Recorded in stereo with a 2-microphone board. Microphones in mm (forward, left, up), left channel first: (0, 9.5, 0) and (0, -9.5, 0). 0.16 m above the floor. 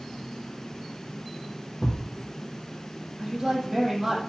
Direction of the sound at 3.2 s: 20° right (ahead or behind).